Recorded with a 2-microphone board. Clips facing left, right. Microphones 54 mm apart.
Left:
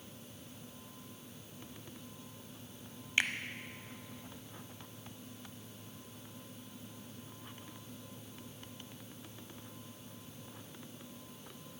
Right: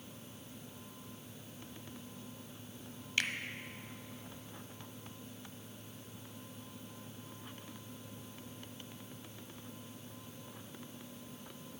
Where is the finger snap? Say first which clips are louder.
Left 3 dB; 25° left (ahead or behind), 0.8 m.